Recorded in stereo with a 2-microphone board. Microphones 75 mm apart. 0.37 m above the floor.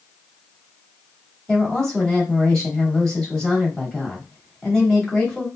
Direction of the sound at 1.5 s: 10° left (ahead or behind).